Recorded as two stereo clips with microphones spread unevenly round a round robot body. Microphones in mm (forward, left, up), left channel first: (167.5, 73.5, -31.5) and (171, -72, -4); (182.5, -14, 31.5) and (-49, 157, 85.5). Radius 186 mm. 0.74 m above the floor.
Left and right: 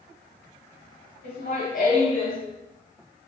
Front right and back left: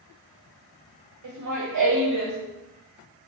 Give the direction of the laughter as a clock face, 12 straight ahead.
8 o'clock.